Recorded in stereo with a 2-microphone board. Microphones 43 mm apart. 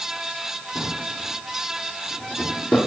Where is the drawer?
30° left (ahead or behind), 1.9 m.